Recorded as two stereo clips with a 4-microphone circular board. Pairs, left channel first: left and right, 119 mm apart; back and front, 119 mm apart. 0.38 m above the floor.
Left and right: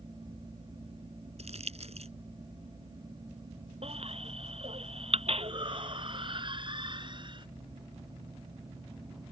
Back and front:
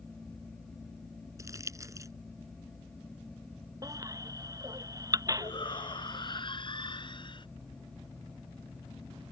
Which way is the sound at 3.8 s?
60° right.